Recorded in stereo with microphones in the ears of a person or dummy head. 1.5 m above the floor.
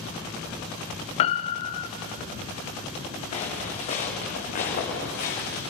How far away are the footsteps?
About 5.5 m.